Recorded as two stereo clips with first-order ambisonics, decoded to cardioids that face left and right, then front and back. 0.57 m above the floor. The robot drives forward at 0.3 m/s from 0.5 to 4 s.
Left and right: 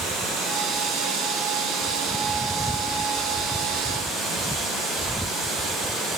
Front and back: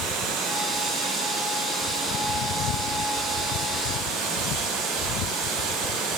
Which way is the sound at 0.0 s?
145° right.